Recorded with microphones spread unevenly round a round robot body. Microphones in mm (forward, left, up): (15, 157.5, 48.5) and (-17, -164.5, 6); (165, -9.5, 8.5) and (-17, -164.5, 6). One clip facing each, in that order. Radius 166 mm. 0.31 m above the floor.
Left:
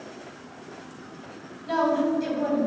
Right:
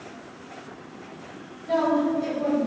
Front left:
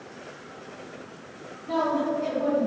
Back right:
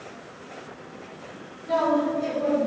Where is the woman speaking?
145° left, 2.5 m.